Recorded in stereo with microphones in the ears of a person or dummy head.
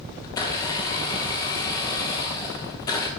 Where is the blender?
20° left (ahead or behind), 0.7 m.